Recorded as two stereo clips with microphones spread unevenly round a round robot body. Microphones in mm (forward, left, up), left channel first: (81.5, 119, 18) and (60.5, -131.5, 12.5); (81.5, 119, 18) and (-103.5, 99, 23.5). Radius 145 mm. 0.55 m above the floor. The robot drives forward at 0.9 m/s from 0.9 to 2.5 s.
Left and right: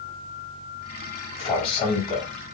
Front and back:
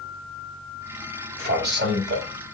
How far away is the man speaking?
About 2.5 m.